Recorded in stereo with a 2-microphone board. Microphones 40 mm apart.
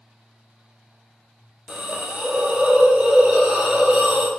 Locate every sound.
1.7 s a hiss: 20° right (ahead or behind), 1.0 m